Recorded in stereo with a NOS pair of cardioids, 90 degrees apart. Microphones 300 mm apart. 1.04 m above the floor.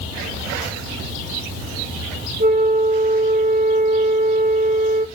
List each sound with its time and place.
2.4 s a flute: 30° right, 1.5 m